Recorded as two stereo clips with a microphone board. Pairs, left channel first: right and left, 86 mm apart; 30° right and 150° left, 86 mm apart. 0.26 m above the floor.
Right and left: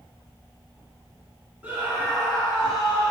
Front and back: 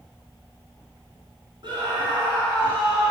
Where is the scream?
160° left, 3 m; by 3.1 s 155° left, 3.5 m.